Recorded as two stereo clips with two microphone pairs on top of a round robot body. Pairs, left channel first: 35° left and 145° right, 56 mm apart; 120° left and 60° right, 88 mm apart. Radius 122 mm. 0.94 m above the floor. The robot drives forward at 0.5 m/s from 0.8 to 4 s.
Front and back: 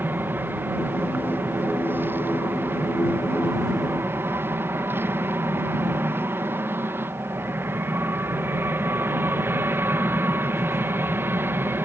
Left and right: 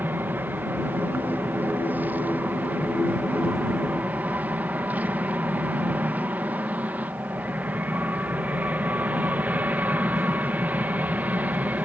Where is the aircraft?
115° right; by 11.8 s 120° right.